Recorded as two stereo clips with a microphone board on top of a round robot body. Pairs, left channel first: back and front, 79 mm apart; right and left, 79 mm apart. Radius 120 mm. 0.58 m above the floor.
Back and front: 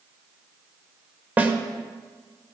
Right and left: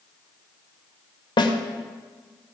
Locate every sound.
1.4 s a snare drum: 70° right, 1.9 m